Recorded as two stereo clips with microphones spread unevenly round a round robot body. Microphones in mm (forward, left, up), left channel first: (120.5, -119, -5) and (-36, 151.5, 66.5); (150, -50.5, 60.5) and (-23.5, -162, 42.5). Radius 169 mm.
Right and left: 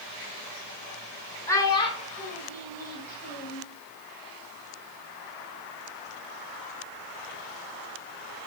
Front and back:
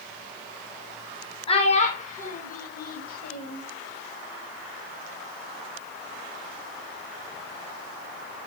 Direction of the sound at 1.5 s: 10° right.